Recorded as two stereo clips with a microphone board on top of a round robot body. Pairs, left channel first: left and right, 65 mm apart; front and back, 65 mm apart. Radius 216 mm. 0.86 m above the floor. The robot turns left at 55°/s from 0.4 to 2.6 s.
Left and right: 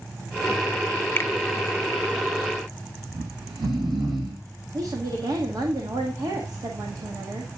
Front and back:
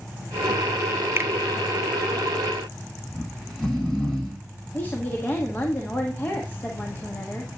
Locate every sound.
1.2 s a finger snap: 135° left, 0.8 m; by 1.3 s 130° left, 0.8 m
3.1 s snoring: 80° right, 1.1 m
4.7 s a woman speaking: 60° right, 1.6 m